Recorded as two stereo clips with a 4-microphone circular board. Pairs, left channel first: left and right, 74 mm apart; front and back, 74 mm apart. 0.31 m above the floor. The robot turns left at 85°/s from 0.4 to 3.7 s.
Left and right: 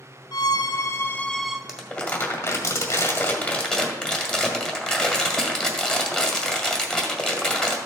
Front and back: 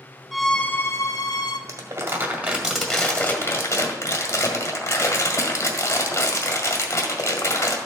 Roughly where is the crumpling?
Behind.